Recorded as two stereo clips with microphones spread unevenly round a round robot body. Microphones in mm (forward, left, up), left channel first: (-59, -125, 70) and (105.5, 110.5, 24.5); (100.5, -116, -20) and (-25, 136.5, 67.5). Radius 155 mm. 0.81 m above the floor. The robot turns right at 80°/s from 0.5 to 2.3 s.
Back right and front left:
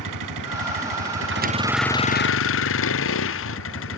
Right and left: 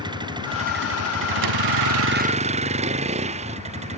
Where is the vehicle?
40° left; by 4.0 s 175° right.